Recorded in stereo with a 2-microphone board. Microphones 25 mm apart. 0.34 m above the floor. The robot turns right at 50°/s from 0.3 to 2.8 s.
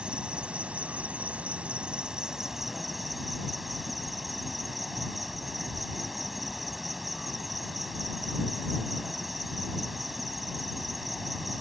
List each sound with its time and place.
0.0 s an insect: 130° right; by 11.6 s 5° right